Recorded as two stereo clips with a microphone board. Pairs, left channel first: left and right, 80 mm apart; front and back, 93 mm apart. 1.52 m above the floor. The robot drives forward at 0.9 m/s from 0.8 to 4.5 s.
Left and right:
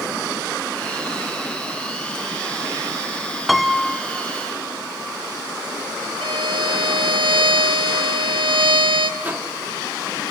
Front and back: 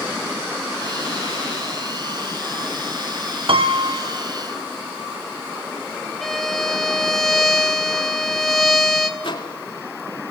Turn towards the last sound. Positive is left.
turn(degrees=-25)